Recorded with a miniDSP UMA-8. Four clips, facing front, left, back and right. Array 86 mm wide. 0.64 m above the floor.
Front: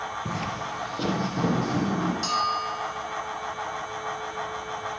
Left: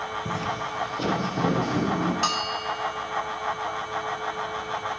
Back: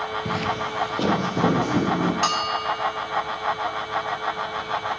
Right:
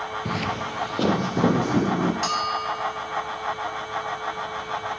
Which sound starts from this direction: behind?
A bell, at 2.2 s.